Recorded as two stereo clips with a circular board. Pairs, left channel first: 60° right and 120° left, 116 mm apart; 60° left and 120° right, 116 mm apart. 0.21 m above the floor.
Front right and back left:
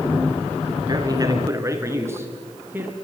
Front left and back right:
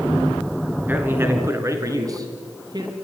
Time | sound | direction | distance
0.9 | a man speaking | 170° left | 3 m